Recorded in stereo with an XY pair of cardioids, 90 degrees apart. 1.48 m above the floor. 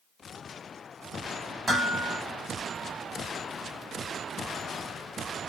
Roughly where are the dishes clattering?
Ahead.